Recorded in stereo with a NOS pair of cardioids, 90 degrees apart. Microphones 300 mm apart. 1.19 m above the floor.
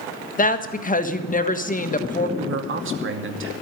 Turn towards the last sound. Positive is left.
turn(degrees=-40)